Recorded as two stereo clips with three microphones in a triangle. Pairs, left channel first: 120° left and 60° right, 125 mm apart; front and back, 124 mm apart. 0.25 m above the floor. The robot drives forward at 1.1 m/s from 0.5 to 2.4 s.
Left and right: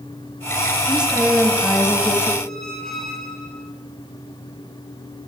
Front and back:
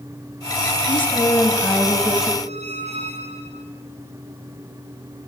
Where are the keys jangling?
I don't hear keys jangling.